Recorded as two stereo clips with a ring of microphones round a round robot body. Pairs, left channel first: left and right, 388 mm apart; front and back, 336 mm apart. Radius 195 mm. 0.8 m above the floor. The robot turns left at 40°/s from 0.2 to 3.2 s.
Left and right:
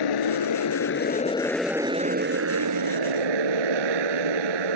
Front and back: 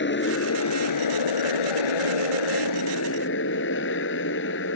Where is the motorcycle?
55° left; by 4.8 s 65° right.